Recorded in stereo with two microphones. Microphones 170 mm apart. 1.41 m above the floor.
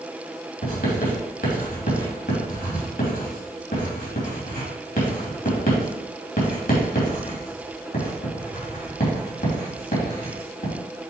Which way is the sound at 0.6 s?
60° left (ahead or behind).